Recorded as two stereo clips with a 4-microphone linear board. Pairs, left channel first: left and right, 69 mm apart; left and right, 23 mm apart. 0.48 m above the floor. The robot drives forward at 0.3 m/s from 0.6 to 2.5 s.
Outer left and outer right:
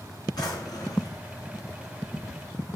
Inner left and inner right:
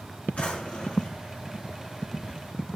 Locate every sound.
0.4 s a drawer: 80° left, 3.5 m; by 1.2 s 85° left, 3.5 m